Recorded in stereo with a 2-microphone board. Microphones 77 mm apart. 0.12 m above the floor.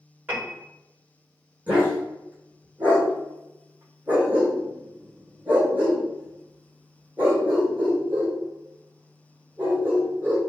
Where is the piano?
25° right (ahead or behind), 1.8 m.